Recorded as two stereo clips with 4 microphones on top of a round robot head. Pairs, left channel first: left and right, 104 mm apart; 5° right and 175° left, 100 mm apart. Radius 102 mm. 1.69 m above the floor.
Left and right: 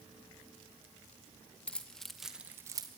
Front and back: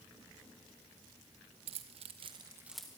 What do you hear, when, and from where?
1.7 s keys jangling: 170° left, 1.2 m; by 2.9 s 80° right, 0.8 m